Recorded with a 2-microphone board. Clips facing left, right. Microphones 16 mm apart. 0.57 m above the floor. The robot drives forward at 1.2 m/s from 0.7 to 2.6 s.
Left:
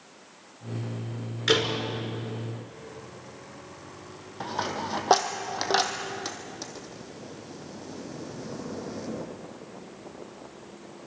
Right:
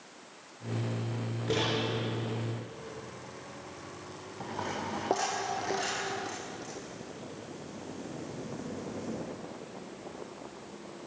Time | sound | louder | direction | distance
1.5 | a door slam | left 7 dB | 85° left | 5.5 m
4.4 | a dropped coin | left 5 dB | 60° left (ahead or behind) | 2.5 m